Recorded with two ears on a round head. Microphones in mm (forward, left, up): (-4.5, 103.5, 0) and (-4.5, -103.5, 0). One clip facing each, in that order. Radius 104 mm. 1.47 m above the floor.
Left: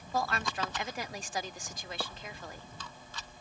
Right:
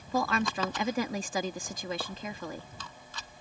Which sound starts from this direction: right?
A woman speaking, at 0.1 s.